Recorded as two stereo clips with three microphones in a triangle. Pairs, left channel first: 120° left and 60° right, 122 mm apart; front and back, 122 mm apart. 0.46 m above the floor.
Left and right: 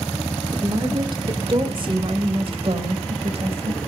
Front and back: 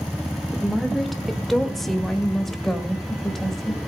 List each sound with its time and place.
0.5 s a woman speaking: 90° right, 1.4 m; by 3.8 s 85° right, 3 m